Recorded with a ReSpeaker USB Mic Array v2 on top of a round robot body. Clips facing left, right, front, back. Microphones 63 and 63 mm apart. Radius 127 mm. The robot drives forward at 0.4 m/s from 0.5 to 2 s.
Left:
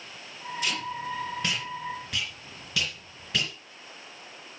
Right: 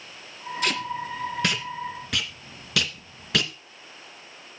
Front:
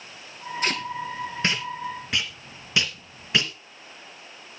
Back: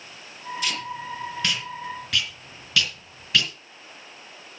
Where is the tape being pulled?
55° right, 2.5 m; by 3.5 s 70° right, 2 m.